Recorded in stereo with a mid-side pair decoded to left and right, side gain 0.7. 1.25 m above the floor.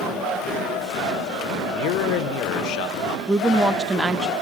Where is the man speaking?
65° left, 0.8 m.